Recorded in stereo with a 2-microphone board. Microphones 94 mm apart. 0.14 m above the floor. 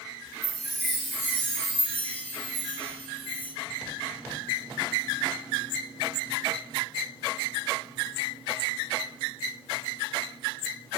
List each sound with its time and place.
0.4 s a chime: 15° left (ahead or behind), 3 m